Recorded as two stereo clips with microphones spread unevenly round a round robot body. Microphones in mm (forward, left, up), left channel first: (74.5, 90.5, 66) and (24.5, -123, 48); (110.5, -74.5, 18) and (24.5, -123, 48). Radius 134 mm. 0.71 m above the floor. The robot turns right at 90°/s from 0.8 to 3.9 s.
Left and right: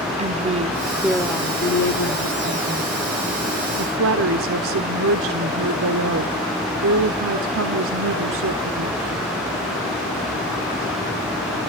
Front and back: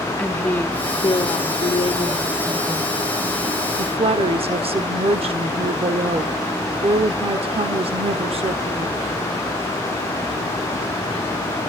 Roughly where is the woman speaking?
Ahead right.